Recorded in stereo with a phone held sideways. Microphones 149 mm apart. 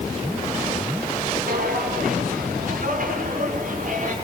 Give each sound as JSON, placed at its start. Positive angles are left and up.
{"t": 1.5, "sound": "footsteps", "side_deg": -75, "distance_m": 8.0}